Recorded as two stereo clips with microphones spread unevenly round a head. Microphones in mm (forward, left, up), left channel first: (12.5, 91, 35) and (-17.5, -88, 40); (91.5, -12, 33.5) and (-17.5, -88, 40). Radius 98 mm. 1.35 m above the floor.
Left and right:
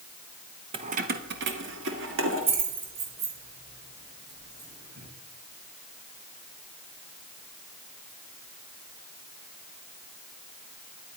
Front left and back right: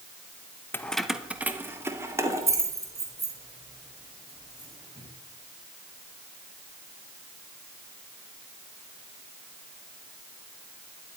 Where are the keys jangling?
40° right, 0.8 m; by 5.1 s 85° right, 6 m.